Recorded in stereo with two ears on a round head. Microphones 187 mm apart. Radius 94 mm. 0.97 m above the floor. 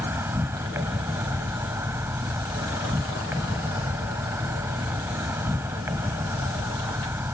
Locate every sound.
0.0 s an insect: 15° right (ahead or behind)